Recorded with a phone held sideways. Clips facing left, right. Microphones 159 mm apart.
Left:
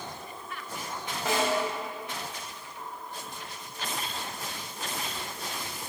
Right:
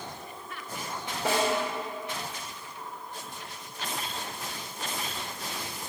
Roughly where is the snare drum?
Right.